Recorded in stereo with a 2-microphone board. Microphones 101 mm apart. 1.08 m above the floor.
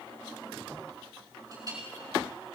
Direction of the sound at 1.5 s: 35° right (ahead or behind).